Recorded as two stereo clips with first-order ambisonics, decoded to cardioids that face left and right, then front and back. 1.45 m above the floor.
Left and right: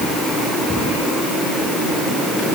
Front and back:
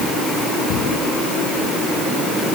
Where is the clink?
I don't hear a clink.